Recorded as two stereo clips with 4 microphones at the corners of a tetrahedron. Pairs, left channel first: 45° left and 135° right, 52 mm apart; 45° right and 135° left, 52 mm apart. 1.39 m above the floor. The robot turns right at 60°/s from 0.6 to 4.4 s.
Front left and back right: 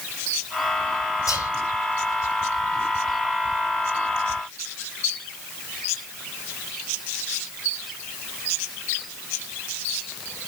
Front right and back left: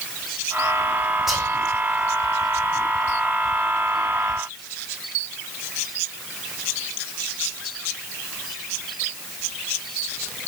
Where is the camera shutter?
No camera shutter in this recording.